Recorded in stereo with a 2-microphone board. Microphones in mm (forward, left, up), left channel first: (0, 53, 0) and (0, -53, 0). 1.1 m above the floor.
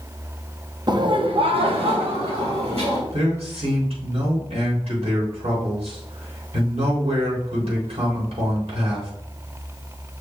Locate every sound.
0.9 s laughter: 40° right (ahead or behind), 0.8 m; by 3.0 s 65° right (ahead or behind), 2.5 m
3.1 s a man speaking: 80° right, 3.5 m